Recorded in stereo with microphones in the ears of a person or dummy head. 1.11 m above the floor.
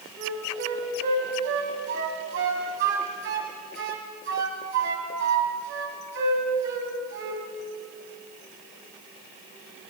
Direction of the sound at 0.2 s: 60° right (ahead or behind).